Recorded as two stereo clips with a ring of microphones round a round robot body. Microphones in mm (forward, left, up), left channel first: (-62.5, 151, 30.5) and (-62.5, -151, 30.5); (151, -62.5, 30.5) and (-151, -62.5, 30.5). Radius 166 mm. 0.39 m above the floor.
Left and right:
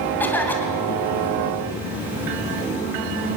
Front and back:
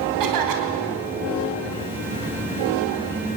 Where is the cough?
175° left, 3 m.